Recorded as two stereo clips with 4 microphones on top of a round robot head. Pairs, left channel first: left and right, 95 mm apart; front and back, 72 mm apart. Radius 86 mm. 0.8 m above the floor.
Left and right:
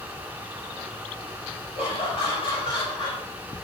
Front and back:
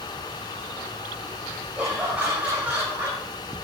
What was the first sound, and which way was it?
Laughter, 100° left.